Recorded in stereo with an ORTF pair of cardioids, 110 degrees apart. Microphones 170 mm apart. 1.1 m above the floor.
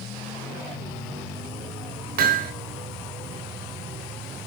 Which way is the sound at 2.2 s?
60° right.